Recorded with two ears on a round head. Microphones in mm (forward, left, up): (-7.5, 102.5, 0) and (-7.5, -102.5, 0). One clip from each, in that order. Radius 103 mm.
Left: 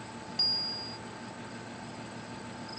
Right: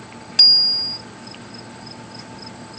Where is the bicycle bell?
80° right.